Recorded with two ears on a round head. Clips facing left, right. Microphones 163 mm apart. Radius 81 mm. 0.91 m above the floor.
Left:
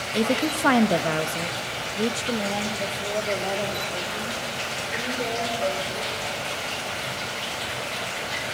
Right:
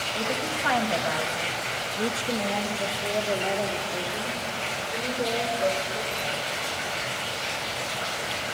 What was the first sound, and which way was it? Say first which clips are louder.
A woman speaking: left 8 dB; 60° left (ahead or behind).